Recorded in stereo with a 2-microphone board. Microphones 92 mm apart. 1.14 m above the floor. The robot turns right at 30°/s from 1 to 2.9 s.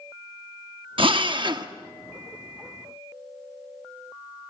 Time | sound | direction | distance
1.0 | a drill | 65° right (ahead or behind) | 1.1 m